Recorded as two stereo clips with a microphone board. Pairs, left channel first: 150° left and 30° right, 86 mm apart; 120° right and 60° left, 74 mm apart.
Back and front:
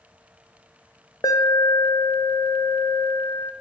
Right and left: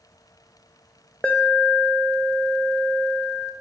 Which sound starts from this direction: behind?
An alarm, at 1.2 s.